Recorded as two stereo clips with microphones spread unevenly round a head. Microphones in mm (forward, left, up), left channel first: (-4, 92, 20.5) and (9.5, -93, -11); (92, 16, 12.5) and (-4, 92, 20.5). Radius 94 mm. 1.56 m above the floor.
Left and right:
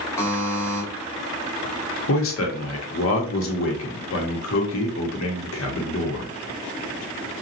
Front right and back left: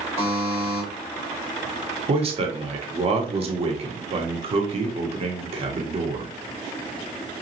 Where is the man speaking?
105° left, 1.0 m.